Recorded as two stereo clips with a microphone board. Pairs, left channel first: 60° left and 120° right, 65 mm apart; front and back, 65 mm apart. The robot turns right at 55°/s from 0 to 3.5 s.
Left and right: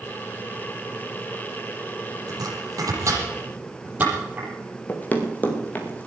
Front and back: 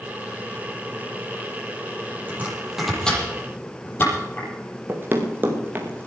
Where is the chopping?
120° right, 8 m; by 4.5 s 55° right, 8 m.